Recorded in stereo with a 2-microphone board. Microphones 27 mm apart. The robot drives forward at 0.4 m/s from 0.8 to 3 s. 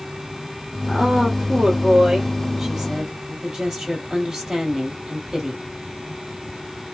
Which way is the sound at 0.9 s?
15° right (ahead or behind).